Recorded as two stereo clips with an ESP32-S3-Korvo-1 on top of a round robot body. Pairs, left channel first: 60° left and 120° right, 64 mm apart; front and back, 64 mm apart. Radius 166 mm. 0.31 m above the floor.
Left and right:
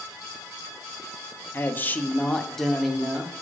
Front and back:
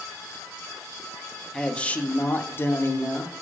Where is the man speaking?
70° left, 1.2 m; by 3.3 s 40° right, 1.6 m.